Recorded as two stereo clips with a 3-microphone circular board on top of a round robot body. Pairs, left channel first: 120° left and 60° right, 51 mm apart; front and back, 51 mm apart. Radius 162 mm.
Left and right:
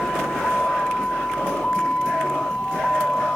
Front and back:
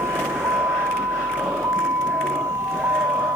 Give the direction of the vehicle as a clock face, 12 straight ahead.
6 o'clock.